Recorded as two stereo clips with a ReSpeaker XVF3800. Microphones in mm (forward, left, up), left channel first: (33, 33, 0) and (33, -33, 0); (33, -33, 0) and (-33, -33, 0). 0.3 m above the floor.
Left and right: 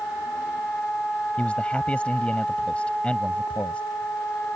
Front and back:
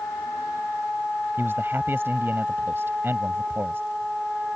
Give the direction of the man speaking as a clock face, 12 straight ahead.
7 o'clock.